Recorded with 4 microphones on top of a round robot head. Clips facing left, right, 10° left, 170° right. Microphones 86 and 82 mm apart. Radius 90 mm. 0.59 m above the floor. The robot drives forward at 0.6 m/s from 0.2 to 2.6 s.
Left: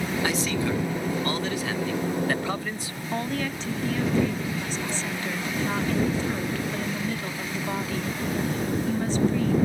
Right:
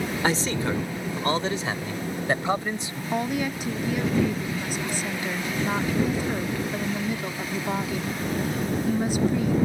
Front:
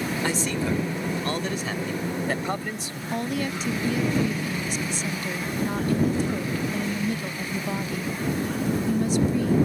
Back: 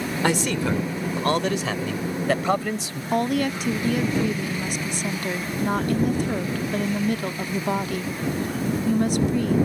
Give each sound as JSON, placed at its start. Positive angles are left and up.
{"t": 0.2, "sound": "a man speaking", "azimuth_deg": -145}
{"t": 3.1, "sound": "a woman speaking", "azimuth_deg": -165}